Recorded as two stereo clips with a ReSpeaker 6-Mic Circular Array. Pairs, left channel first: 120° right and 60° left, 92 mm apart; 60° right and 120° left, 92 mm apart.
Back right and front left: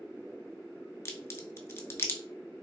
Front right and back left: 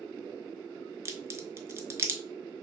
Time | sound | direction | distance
1.1 | a crack | straight behind | 0.5 m